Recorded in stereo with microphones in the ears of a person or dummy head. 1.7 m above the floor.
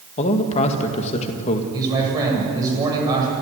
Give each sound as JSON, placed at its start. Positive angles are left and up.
{"t": 0.2, "sound": "a man speaking", "side_deg": 40, "distance_m": 2.0}
{"t": 1.7, "sound": "a man speaking", "side_deg": -20, "distance_m": 8.0}